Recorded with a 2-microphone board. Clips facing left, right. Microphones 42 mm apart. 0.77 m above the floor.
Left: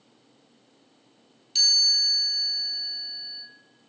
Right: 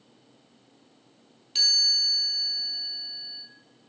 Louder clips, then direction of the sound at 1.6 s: Left 1 dB; 30° right (ahead or behind).